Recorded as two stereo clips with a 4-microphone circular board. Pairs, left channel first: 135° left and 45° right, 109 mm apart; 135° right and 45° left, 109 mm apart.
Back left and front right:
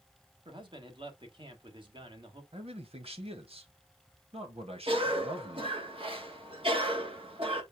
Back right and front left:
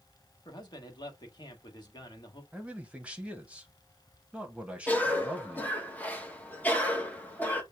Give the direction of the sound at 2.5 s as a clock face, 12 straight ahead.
1 o'clock.